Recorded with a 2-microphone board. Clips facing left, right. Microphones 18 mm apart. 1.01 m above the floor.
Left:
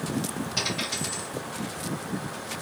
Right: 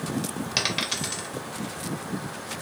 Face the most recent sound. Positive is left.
turn(degrees=-70)  # may be behind; listen again after turning